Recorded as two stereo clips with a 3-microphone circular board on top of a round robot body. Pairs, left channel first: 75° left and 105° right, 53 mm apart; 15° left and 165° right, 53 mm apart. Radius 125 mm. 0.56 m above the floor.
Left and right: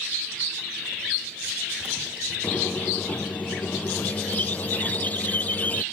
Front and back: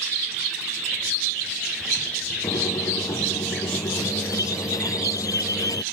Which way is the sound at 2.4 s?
15° left.